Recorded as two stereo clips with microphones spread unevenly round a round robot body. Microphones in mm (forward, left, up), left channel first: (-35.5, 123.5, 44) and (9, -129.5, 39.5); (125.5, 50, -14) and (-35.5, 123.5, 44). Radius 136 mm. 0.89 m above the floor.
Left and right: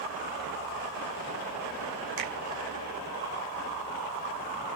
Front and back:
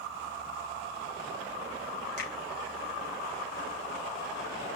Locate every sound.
2.2 s a finger snap: 70° right, 5 m